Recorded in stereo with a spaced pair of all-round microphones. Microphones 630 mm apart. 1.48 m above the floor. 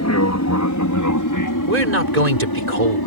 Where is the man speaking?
75° right (ahead or behind).